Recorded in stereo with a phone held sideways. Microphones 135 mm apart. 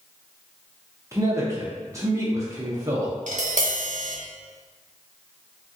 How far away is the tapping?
About 0.7 m.